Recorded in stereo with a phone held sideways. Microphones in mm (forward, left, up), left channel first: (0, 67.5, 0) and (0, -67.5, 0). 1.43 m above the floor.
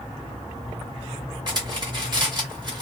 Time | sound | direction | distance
1.5 | cutlery clinking | 35° right (ahead or behind) | 1.3 m